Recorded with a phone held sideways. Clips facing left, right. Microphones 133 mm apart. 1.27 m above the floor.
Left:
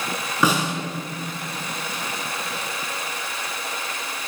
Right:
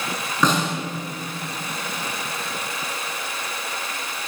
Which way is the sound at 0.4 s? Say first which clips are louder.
Even; 10° left (ahead or behind).